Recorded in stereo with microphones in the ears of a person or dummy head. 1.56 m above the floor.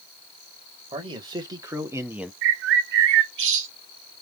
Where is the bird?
70° right (ahead or behind), 0.6 m.